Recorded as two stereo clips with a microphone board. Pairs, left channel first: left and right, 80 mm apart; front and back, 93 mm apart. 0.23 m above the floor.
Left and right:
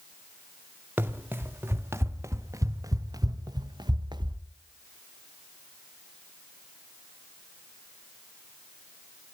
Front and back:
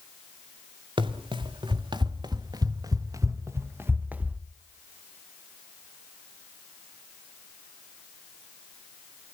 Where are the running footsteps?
155° right, 2 m; by 4.4 s 100° right, 1.4 m.